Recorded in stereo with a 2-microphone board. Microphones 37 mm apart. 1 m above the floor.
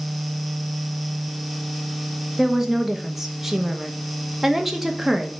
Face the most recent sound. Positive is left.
turn(degrees=-5)  # may be behind; listen again after turning